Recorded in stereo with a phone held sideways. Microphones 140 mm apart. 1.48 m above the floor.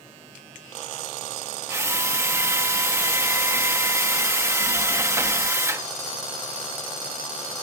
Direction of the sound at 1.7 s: 20° right (ahead or behind).